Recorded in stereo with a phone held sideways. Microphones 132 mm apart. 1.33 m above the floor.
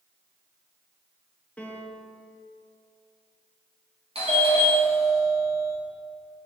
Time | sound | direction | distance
1.6 | a piano | 10° left (ahead or behind) | 1.1 m
4.2 | a doorbell | 45° right (ahead or behind) | 2.5 m